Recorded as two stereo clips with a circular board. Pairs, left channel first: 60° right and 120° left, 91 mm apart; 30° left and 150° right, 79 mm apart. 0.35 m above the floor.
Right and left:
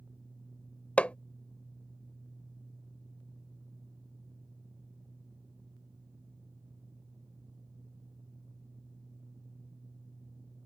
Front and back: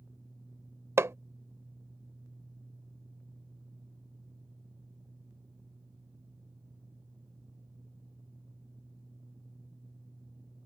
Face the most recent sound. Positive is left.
turn(degrees=-130)